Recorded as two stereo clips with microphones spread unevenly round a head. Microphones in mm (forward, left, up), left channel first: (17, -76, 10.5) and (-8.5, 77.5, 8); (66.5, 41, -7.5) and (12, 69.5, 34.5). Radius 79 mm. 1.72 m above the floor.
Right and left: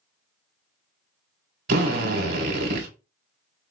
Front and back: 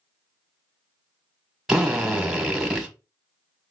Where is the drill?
65° left, 1.4 m.